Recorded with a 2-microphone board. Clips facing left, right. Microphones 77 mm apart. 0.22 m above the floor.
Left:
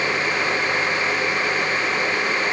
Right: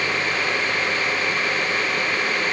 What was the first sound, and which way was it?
Only background noise.